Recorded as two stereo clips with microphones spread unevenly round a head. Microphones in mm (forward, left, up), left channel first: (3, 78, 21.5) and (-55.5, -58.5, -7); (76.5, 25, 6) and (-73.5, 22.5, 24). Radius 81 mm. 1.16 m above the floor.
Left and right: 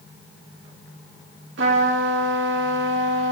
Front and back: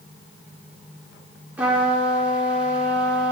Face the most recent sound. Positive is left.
turn(degrees=-100)